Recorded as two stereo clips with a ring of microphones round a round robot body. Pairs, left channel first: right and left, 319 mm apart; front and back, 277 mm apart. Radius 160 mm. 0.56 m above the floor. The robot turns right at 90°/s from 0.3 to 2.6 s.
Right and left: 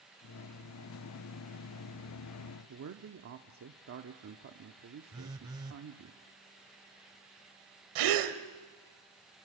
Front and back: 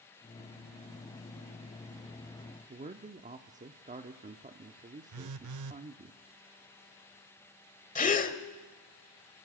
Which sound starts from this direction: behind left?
A man speaking, at 2.7 s.